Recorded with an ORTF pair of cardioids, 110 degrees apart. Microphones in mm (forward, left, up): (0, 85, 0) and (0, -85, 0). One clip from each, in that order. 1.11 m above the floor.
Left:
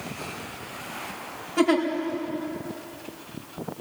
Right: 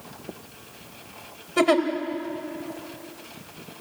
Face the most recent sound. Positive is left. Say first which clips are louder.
# right 2 dB
turn(degrees=-45)